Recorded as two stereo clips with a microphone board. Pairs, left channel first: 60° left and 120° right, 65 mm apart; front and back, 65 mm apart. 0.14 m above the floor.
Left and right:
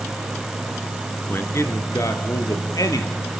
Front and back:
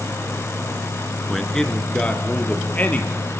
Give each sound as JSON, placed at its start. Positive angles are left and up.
{"t": 1.3, "sound": "a man speaking", "azimuth_deg": 85, "distance_m": 1.9}